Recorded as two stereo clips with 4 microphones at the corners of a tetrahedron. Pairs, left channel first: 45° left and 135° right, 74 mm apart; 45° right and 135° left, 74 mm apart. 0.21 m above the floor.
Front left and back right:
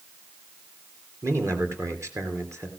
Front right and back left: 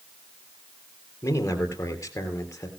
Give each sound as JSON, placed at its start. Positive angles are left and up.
{"t": 1.2, "sound": "a man speaking", "azimuth_deg": -90, "distance_m": 3.0}